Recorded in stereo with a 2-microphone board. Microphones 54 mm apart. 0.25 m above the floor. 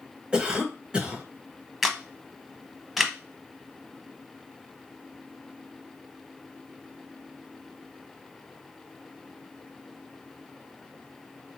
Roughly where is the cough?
Centre.